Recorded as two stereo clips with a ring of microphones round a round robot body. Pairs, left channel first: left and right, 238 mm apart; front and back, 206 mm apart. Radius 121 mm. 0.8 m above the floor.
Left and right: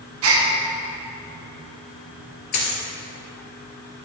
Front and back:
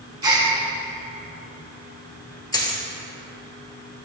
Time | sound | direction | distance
0.2 | a gasp | 110° right | 1.2 m
2.5 | a dropped coin | 70° left | 2.5 m